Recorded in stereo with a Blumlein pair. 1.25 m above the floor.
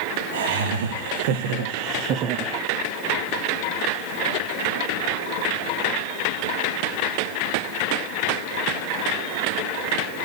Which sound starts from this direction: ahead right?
Laughter, at 0.3 s.